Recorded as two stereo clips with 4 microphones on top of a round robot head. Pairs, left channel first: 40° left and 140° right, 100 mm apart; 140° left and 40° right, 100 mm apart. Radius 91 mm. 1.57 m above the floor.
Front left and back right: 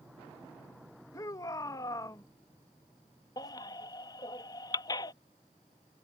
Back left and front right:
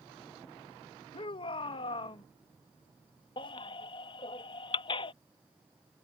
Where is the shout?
100° left.